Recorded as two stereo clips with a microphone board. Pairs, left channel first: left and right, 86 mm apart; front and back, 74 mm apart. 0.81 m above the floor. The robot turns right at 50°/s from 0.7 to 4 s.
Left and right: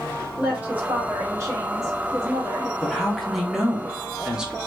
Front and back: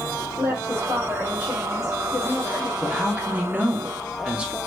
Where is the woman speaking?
155° right, 1.2 m; by 2.7 s 55° right, 1.2 m.